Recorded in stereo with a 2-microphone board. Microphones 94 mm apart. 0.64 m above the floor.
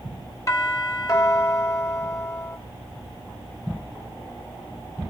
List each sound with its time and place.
0.5 s a doorbell: 40° left (ahead or behind), 4 m